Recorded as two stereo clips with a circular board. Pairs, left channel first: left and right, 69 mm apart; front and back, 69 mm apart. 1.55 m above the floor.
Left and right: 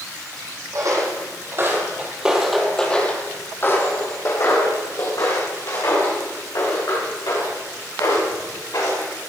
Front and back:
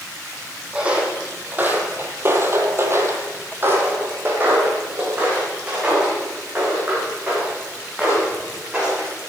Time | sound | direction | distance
0.7 | footsteps | 110° right | 3 m